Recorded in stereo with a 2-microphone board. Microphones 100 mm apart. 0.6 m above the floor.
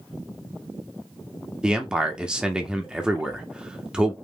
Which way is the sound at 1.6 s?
10° right (ahead or behind).